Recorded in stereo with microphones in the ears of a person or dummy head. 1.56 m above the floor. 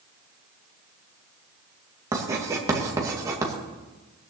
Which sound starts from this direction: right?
Writing, at 2.1 s.